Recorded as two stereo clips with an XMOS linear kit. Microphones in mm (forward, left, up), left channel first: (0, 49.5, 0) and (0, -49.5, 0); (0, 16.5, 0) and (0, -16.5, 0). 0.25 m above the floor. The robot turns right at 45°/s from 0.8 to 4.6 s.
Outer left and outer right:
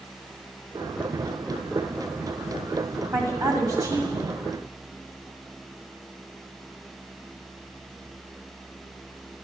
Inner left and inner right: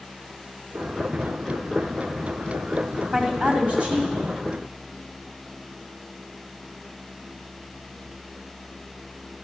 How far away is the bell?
No bell in this recording.